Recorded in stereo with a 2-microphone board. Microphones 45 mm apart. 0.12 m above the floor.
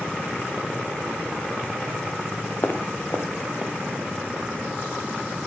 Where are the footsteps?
55° left (ahead or behind), 1.6 m; by 3.7 s 65° left (ahead or behind), 1.1 m.